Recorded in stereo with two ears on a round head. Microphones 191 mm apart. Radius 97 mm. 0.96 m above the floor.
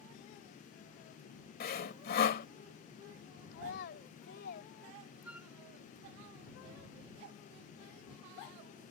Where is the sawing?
45° left (ahead or behind).